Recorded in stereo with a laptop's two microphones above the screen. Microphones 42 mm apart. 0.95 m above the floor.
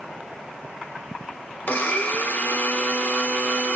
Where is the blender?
45° left (ahead or behind), 0.9 m.